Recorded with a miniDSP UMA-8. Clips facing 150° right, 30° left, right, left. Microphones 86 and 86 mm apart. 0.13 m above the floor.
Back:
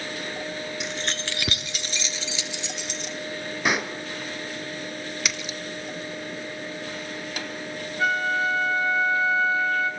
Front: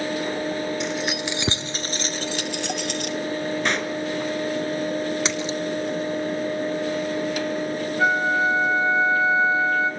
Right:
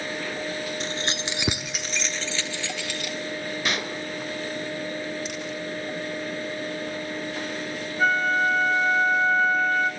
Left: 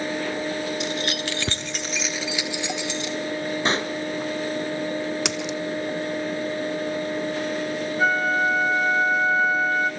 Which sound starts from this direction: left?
A splash, at 5.2 s.